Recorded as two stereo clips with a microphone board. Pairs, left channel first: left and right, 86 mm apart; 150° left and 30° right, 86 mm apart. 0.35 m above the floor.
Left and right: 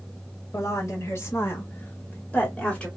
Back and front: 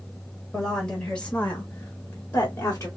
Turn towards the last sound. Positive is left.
turn(degrees=165)